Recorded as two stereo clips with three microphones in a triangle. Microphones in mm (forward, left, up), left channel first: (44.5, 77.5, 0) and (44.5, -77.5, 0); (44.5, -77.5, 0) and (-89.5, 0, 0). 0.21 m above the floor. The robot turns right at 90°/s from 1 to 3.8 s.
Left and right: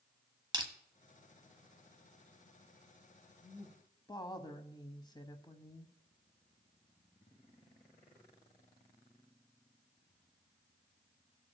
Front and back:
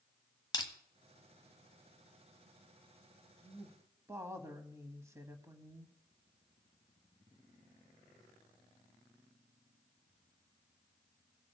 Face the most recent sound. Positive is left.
turn(degrees=100)